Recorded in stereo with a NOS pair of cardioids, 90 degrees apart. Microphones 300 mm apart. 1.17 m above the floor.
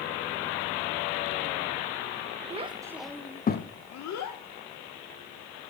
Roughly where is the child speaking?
Ahead.